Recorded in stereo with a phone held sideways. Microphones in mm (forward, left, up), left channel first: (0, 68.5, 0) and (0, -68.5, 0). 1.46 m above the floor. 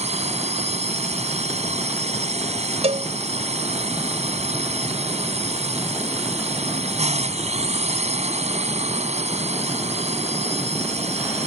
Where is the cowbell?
60° right (ahead or behind).